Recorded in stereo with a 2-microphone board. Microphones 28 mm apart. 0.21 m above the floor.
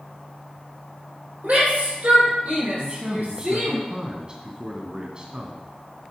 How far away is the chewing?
No chewing in this recording.